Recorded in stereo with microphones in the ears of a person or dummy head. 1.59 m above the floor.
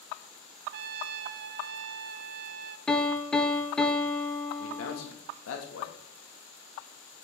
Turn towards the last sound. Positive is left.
turn(degrees=75)  # may be behind; listen again after turning